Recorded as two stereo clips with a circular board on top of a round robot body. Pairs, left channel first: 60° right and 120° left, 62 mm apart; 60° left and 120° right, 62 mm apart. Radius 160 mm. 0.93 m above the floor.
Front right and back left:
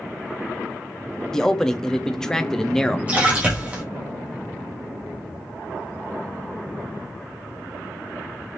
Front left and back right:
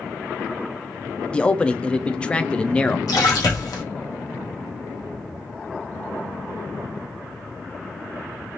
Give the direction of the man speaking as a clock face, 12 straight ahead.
12 o'clock.